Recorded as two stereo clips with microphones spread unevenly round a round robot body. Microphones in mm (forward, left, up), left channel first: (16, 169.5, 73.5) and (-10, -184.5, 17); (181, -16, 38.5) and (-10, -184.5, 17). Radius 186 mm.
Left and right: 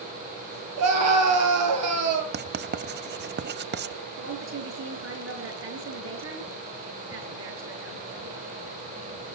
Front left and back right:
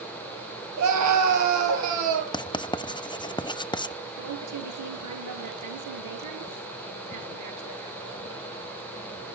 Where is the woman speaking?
150° right, 6.5 m.